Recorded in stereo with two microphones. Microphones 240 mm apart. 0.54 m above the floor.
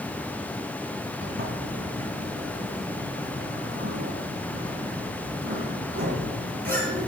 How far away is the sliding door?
About 4 m.